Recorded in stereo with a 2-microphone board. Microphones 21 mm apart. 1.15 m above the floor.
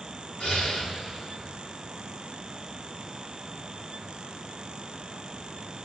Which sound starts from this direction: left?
Breathing, at 0.4 s.